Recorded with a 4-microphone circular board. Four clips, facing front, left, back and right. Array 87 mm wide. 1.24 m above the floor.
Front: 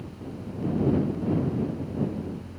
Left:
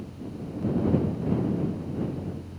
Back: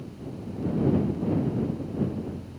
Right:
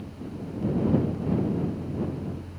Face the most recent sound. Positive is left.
No sound to turn to.